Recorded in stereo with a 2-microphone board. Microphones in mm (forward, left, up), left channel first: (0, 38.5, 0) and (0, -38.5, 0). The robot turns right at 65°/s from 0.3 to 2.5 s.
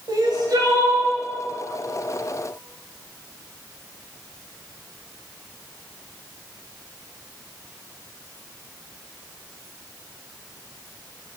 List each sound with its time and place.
0.1 s crying: 85° right, 2 m; by 1.1 s 40° right, 2 m